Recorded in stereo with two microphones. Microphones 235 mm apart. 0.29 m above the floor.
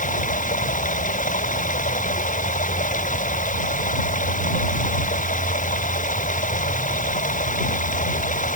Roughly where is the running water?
Left.